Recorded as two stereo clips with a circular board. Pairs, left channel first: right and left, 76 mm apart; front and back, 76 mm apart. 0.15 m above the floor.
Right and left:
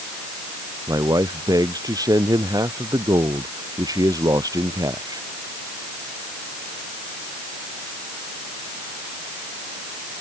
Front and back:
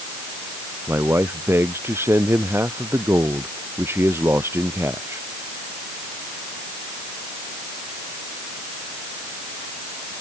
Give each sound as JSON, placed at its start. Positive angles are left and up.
{"t": 0.9, "sound": "a man speaking", "azimuth_deg": 125}